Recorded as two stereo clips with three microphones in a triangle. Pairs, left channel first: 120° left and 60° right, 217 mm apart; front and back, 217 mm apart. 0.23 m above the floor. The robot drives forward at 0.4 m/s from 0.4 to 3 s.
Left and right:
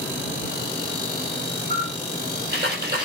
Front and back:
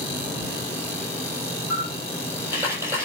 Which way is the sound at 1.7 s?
95° right.